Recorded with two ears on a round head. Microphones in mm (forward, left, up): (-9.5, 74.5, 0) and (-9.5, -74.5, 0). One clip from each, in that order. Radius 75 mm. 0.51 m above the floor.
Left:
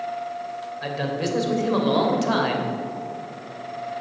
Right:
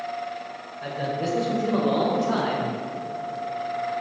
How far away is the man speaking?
About 2.5 m.